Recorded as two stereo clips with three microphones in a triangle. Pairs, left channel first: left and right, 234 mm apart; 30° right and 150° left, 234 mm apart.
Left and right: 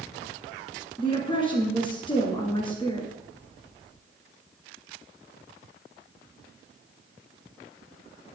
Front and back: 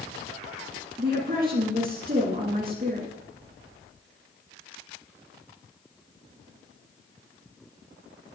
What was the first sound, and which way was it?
A woman speaking, 145° left.